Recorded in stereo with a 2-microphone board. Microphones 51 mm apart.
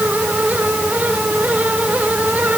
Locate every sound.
Only background noise.